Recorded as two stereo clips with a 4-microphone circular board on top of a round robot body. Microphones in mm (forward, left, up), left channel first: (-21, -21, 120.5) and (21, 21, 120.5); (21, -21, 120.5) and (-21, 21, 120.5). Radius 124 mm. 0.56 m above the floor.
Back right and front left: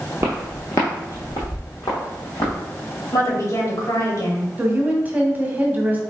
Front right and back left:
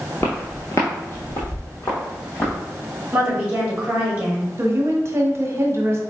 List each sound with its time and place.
0.2 s footsteps: 10° left, 0.5 m; by 2.5 s 105° right, 2.0 m
3.1 s a woman speaking: 160° right, 2 m
4.6 s a woman speaking: 100° left, 1.2 m